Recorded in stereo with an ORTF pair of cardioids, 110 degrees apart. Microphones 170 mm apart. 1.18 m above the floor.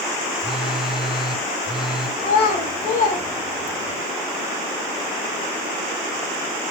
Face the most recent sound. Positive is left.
turn(degrees=60)